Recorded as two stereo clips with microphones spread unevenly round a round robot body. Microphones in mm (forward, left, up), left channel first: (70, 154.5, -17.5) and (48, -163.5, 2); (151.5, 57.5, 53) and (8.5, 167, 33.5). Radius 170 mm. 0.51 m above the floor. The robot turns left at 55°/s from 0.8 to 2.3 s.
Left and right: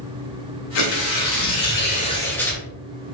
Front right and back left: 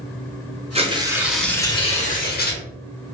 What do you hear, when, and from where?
0.8 s tearing paper: 85° left, 1.5 m; by 2.6 s 5° left, 1.5 m